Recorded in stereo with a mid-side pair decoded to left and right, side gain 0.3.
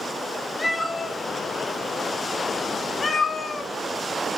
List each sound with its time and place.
0.6 s a cat meowing: 25° left, 2.5 m; by 3.7 s 70° left, 1.1 m